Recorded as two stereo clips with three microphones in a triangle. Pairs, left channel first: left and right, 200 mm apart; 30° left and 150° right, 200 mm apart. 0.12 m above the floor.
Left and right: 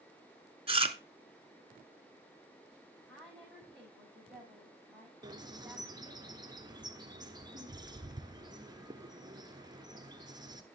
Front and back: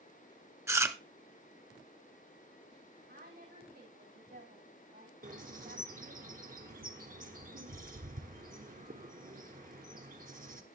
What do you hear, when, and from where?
0.7 s chewing: 90° right, 0.8 m
3.1 s a woman speaking: straight behind, 9.5 m
5.2 s a bird: 150° right, 1.2 m